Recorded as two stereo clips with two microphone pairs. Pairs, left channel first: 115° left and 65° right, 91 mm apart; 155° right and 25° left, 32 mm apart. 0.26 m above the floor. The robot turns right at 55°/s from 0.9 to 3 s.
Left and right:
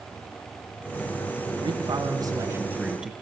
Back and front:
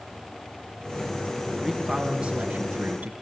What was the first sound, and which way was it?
A man speaking, 65° right.